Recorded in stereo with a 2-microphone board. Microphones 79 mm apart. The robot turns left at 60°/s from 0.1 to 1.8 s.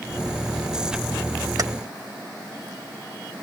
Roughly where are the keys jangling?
Right.